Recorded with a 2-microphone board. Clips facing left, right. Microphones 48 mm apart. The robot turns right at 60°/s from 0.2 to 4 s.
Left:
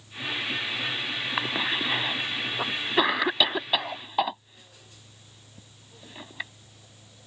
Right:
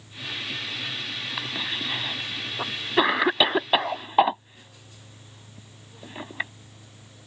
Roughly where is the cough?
Left.